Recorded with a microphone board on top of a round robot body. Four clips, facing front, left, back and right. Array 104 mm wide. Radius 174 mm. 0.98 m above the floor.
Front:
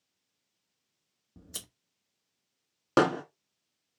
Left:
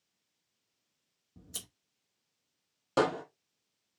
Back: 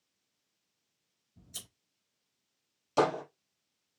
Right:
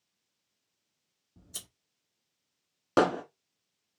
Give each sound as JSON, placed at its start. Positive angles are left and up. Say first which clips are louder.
{"t": 1.4, "sound": "scissors", "louder": "left 2 dB, front 6 dB", "azimuth_deg": 10, "distance_m": 1.2}
{"t": 3.0, "sound": "hammering", "louder": "right 4 dB, front 3 dB", "azimuth_deg": -25, "distance_m": 1.8}